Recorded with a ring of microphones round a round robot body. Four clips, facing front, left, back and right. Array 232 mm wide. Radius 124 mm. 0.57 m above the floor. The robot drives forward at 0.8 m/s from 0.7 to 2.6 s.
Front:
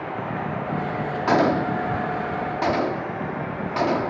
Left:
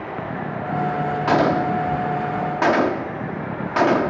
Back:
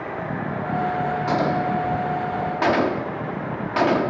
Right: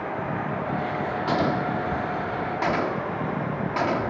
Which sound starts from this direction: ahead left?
A gunshot, at 1.3 s.